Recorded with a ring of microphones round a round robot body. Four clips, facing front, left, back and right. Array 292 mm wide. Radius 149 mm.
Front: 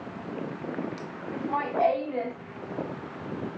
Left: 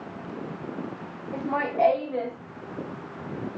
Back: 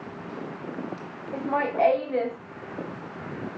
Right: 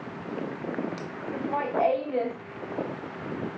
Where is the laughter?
140° left, 1.0 m; by 2.4 s 130° right, 0.9 m.